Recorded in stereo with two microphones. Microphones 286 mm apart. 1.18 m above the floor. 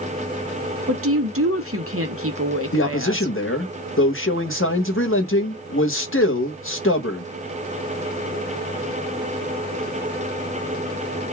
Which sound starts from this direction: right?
A woman speaking, at 0.9 s.